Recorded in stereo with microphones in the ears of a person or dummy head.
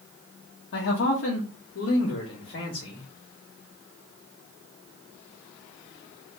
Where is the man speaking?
65° left (ahead or behind), 1.1 m; by 3.1 s 55° left (ahead or behind), 1.8 m.